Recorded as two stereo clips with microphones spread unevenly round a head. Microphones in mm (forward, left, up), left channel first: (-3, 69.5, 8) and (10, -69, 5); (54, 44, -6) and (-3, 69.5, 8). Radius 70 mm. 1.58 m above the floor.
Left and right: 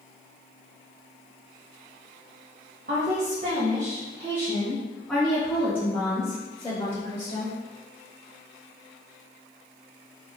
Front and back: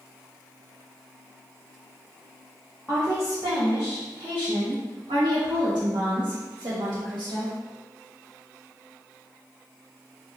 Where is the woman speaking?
120° right, 1.1 m; by 7.6 s 160° left, 2.5 m.